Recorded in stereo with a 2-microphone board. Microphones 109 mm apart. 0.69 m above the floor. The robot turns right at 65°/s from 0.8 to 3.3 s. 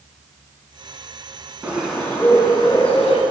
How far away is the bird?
About 1.9 m.